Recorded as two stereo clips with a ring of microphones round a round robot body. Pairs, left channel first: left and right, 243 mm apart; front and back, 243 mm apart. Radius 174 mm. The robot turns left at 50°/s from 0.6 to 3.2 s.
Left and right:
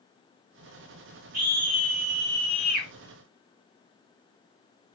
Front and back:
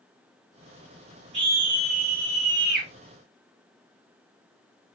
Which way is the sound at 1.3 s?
145° right.